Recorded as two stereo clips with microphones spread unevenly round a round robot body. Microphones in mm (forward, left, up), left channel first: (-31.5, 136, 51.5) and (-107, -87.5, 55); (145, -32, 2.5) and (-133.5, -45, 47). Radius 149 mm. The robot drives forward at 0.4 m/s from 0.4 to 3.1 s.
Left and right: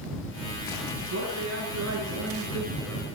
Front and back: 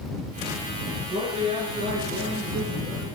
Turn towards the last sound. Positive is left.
turn(degrees=-115)